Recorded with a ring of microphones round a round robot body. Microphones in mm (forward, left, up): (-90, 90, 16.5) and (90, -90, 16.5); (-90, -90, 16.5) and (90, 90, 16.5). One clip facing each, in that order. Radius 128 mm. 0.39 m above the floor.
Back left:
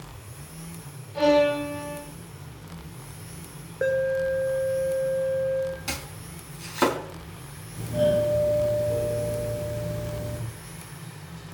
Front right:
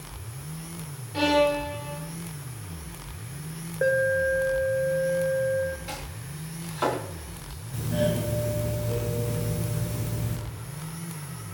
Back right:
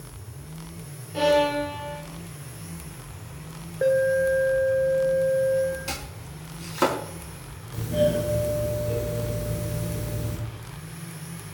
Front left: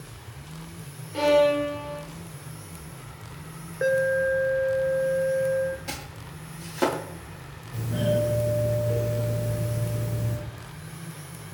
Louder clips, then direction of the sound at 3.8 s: Even, back right 2 dB; 70° left.